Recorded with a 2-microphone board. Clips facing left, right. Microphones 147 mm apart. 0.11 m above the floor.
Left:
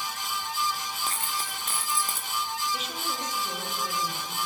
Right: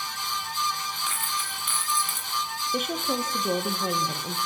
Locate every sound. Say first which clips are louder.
1.1 s a dropped coin: even; 35° left (ahead or behind), 6.5 m
2.7 s a woman speaking: right 6 dB; 55° right (ahead or behind), 4 m